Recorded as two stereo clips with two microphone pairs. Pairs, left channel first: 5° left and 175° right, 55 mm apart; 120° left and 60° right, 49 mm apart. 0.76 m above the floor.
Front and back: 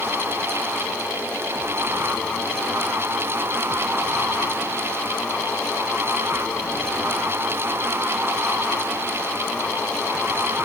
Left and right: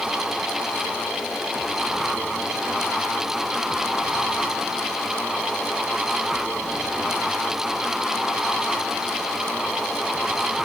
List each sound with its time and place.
Only background noise.